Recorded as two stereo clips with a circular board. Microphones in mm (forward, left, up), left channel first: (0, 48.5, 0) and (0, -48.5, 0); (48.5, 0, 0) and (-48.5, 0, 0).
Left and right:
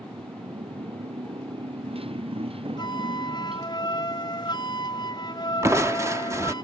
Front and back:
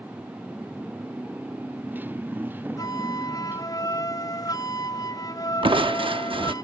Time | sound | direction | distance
0.0 | a motorcycle | 105° right | ?
2.8 | a flute | 50° left | ?
5.6 | crushing | 150° right | ?